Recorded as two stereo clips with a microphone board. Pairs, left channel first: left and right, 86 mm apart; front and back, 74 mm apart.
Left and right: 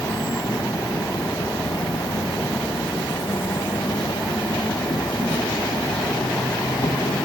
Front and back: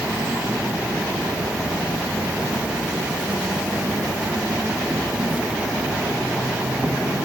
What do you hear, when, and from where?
0.0 s an insect: 105° left, 1.9 m